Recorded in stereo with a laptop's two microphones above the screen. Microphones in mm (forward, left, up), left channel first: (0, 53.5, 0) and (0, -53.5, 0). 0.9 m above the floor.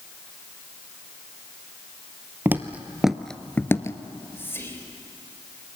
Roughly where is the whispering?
Left.